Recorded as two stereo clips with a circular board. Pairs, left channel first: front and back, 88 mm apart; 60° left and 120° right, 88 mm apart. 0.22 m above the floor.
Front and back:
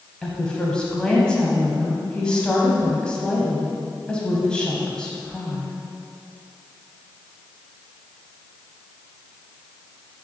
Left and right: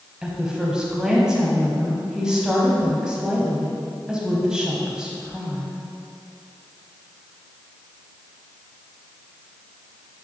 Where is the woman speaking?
55° right, 1.0 m.